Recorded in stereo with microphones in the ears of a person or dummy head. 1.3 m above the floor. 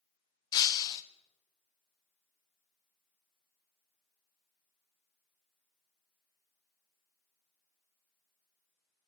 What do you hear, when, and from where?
0.5 s breaking glass: 25° left (ahead or behind), 0.5 m